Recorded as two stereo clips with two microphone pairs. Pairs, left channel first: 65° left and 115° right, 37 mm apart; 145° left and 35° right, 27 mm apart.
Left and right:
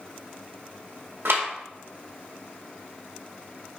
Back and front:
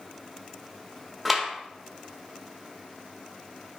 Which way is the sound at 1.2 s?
120° right.